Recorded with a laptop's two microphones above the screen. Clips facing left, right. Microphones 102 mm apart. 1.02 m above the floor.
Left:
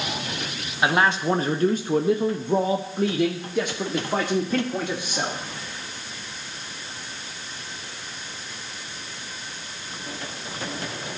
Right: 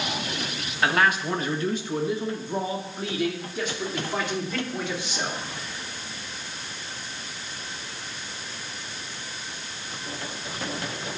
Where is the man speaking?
15° left (ahead or behind), 0.9 m; by 5.4 s 50° left (ahead or behind), 2.5 m.